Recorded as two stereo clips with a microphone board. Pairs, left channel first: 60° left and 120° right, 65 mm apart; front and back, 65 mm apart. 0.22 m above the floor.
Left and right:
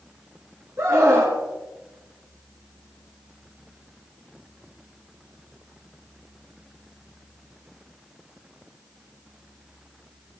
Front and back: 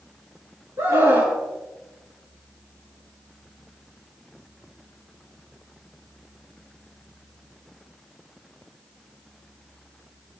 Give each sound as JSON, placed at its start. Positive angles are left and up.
{"t": 0.8, "sound": "a scream", "azimuth_deg": -160, "distance_m": 3.0}